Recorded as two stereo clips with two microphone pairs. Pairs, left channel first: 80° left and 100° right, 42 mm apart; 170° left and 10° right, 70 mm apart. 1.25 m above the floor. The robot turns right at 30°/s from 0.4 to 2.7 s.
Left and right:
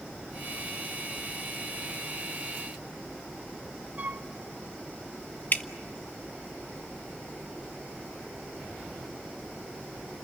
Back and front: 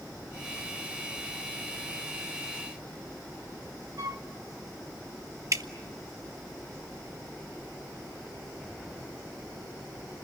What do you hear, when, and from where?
4.0 s a flute: 45° right, 1.1 m
5.5 s dripping: 35° left, 1.0 m